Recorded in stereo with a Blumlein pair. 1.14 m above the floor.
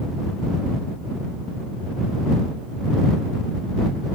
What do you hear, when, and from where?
Only background noise.